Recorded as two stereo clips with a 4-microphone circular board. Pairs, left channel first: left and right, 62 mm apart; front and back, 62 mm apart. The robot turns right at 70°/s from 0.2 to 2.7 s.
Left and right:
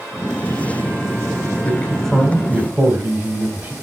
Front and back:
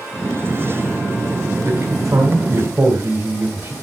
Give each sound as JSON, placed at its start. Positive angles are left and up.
{"t": 1.6, "sound": "a man speaking", "azimuth_deg": 145, "distance_m": 2.0}